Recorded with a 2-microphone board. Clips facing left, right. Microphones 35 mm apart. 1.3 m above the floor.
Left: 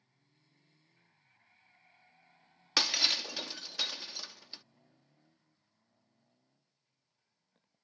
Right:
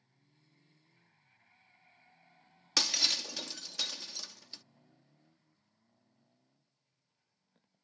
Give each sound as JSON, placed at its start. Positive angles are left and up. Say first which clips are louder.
{"t": 2.8, "sound": "breaking glass", "louder": "left 2 dB", "side_deg": 15}